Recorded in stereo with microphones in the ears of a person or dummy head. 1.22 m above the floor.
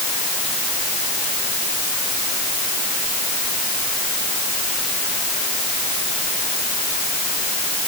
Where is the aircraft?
No aircraft in this recording.